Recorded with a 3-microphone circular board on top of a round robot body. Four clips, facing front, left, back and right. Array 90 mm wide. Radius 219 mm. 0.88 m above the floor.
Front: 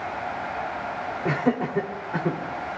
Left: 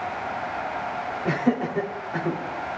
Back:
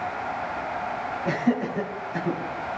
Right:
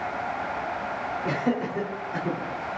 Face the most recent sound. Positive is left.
turn(degrees=10)